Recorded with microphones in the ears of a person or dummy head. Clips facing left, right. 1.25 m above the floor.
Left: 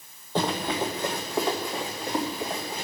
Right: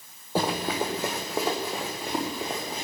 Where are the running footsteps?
10° right (ahead or behind), 2.5 m; by 2.9 s 5° right (ahead or behind), 4.5 m.